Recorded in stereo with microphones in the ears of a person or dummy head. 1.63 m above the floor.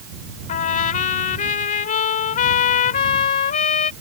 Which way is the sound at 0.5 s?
45° left (ahead or behind).